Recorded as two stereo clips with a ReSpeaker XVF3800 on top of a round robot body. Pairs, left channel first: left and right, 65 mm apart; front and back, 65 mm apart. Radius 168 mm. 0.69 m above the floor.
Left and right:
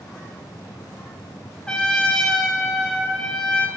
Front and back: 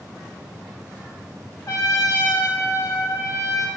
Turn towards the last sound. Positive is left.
turn(degrees=15)